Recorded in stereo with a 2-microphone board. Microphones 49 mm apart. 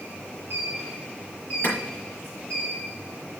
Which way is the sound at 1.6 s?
40° left (ahead or behind).